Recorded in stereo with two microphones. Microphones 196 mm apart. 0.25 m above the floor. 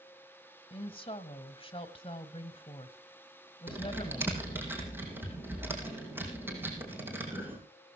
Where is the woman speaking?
30° left (ahead or behind), 1.4 m.